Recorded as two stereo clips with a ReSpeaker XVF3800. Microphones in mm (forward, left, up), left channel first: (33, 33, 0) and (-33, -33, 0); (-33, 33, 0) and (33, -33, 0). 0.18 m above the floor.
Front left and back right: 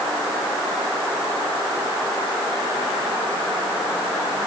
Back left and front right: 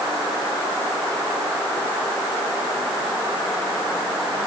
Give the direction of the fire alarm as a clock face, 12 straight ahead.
I don't hear a fire alarm.